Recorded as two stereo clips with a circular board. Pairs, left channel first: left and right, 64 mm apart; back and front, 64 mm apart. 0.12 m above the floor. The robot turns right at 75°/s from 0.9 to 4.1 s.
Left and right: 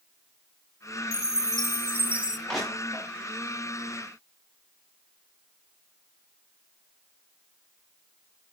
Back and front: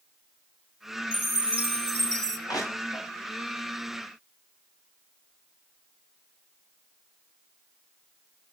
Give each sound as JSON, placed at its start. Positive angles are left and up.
{"t": 1.1, "sound": "a chime", "azimuth_deg": -105, "distance_m": 0.7}
{"t": 2.5, "sound": "crushing", "azimuth_deg": 175, "distance_m": 7.5}